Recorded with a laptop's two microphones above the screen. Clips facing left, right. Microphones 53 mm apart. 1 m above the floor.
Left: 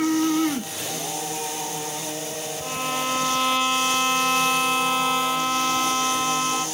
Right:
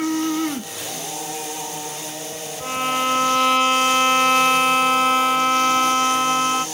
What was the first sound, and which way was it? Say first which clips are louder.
A violin: right 6 dB; 50° right (ahead or behind).